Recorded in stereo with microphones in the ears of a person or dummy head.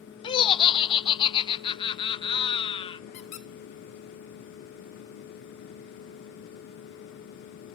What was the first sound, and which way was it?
Laughter, 30° left (ahead or behind).